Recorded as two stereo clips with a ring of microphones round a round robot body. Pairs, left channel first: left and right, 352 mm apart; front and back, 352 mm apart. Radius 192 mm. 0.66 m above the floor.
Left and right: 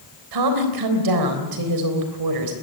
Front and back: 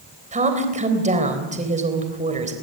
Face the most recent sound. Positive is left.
turn(degrees=-110)